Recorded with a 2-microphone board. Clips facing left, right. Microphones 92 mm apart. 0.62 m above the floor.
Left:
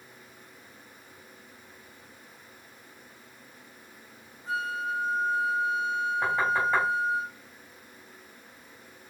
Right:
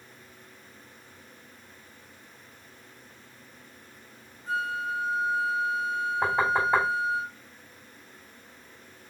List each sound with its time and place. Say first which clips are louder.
4.5 s a flute: right 1 dB; 40° left (ahead or behind), 1.1 m
6.2 s knocking: right 2 dB; 30° right (ahead or behind), 2.5 m